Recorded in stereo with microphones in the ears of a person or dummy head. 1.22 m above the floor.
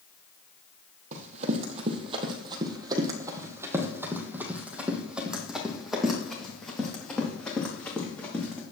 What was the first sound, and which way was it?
Running footsteps, 45° right (ahead or behind).